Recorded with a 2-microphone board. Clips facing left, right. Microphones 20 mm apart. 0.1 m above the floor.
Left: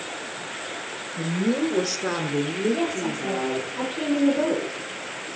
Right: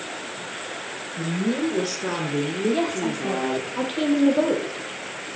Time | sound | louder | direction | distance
1.2 | a woman speaking | left 1 dB | 40° left (ahead or behind) | 1.9 m
2.7 | a woman speaking | right 2 dB | 60° right (ahead or behind) | 3 m